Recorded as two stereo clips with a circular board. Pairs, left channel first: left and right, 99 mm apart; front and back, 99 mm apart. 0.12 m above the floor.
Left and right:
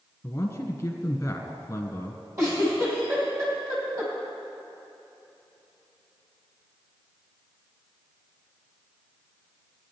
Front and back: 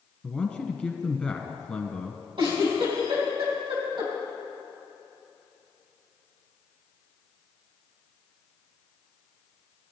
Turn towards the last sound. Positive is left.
turn(degrees=-145)